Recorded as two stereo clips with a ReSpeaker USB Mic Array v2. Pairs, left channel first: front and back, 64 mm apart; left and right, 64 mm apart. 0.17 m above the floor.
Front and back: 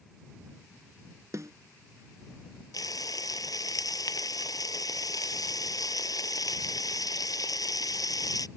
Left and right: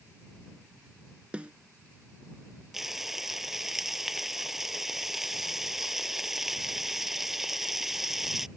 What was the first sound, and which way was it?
A snare drum, 160° right.